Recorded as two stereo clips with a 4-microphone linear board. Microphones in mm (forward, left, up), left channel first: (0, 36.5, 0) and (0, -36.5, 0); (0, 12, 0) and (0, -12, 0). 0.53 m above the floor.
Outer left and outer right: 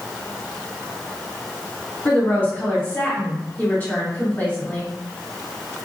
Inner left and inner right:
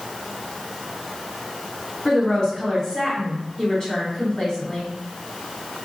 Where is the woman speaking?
30° left (ahead or behind), 1.6 m.